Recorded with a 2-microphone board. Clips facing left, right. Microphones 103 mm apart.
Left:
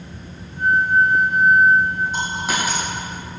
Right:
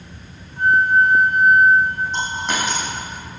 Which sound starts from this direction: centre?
A dropped coin, at 2.1 s.